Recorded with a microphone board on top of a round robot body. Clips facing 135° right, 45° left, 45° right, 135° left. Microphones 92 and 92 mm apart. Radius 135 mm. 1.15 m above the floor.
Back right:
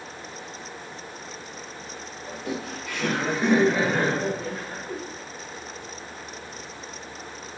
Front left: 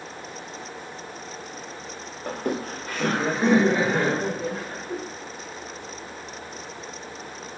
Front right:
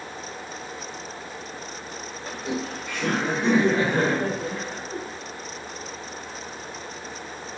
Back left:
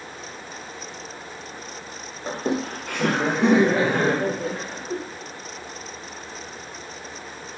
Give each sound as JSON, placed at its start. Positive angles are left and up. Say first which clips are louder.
{"t": 2.3, "sound": "laughter", "louder": "front left 5 dB, back left 5 dB", "azimuth_deg": 75, "distance_m": 0.6}